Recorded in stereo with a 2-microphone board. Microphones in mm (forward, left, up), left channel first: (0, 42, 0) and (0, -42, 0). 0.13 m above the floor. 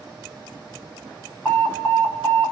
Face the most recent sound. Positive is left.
turn(degrees=25)  # may be behind; listen again after turning